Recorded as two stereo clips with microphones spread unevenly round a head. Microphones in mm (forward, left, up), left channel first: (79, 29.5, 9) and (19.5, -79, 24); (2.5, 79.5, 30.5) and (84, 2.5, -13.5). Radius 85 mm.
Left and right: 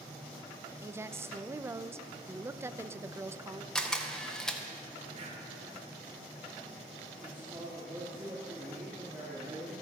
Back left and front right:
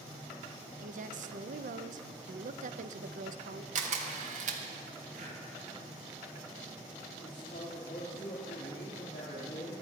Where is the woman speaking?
50° right, 0.7 m.